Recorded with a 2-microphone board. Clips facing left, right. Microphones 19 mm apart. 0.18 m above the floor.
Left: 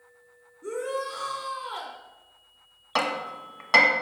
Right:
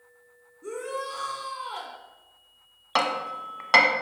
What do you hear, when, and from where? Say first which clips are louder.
0.6 s a shout: left 2 dB; 5° right (ahead or behind), 1.3 m
3.0 s hammering: right 2 dB; 10° right (ahead or behind), 0.8 m